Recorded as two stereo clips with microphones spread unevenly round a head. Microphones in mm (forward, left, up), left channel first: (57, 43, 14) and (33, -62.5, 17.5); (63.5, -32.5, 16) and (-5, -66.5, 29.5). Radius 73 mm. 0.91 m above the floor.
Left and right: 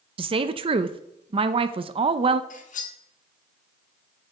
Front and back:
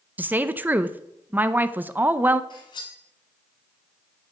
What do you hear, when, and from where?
0.2 s a woman speaking: 80° right, 0.6 m
2.5 s cutlery clinking: 75° left, 1.3 m